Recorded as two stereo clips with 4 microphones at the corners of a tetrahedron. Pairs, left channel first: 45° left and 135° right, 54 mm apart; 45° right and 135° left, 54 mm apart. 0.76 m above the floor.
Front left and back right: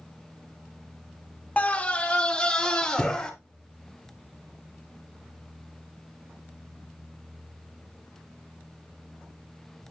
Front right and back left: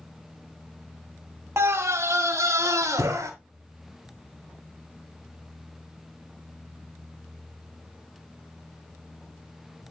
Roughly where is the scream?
Left.